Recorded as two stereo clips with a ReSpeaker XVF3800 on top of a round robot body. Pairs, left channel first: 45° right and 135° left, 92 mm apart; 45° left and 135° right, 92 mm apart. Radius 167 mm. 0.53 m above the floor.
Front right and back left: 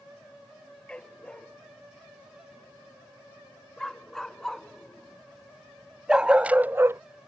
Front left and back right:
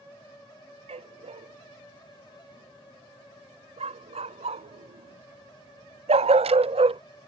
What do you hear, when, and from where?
0.9 s a dog barking: 125° right; by 7.0 s 160° right